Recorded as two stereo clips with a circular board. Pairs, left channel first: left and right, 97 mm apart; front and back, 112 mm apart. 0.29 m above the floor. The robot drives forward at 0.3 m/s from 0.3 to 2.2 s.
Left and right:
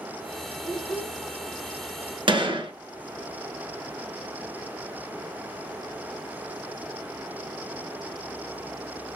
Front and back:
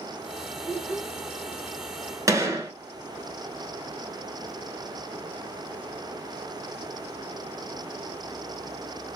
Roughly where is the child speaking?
Right.